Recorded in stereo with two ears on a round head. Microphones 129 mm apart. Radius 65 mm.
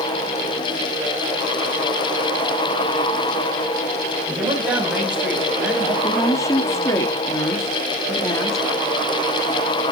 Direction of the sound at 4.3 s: 10° right (ahead or behind).